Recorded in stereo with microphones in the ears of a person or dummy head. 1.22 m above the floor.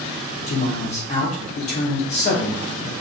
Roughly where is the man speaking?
Left.